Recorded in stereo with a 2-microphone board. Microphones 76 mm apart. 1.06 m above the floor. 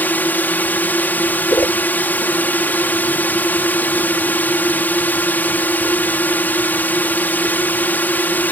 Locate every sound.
0.0 s a drone: 25° left (ahead or behind)
1.5 s a whoosh: 55° left (ahead or behind)